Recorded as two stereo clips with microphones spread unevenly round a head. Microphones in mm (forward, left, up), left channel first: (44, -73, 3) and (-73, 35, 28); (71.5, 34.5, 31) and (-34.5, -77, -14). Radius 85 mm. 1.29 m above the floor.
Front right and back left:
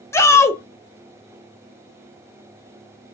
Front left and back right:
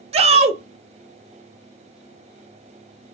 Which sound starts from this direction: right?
A shout, at 0.1 s.